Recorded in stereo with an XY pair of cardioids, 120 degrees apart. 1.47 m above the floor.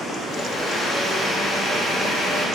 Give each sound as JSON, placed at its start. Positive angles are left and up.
{"t": 0.3, "sound": "a blender", "azimuth_deg": 45, "distance_m": 1.5}